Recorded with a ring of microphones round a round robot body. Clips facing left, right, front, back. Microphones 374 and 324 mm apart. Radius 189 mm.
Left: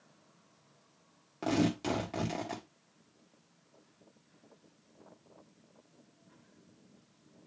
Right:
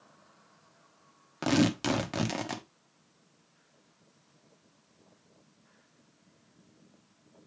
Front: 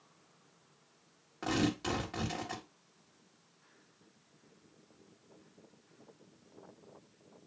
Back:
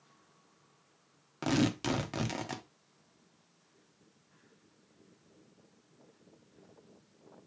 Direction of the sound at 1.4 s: 140° right.